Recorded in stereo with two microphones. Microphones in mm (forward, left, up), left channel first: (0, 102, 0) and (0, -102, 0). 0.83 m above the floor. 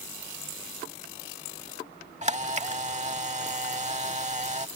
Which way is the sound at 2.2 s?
30° right (ahead or behind).